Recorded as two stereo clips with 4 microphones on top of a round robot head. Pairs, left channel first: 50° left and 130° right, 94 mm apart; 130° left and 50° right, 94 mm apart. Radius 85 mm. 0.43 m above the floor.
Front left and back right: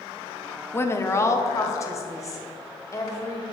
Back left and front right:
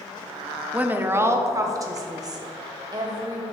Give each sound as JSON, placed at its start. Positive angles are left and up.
{"t": 0.7, "sound": "a woman speaking", "azimuth_deg": 15, "distance_m": 0.8}